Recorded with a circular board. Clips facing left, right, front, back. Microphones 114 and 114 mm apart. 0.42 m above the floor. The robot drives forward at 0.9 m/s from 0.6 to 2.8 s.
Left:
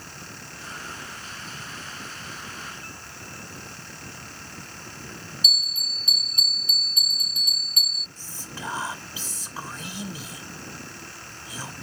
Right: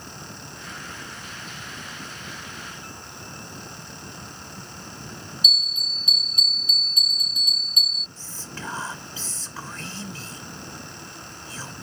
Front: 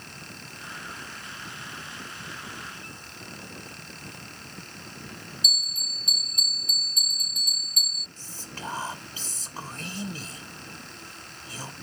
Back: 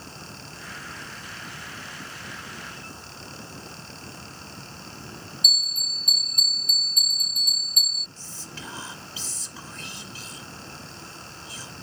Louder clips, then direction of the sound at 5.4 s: Right 2 dB, back 2 dB; 145° left.